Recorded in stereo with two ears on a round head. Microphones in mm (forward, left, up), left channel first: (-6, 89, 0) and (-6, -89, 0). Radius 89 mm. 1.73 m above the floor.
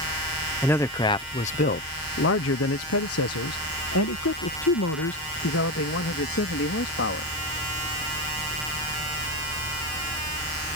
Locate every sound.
0.6 s a man speaking: 10° left (ahead or behind); by 7.3 s 65° left (ahead or behind)